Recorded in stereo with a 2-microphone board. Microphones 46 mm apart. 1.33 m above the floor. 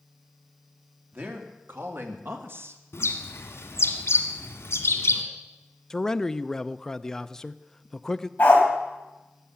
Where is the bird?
70° left (ahead or behind), 1.8 m.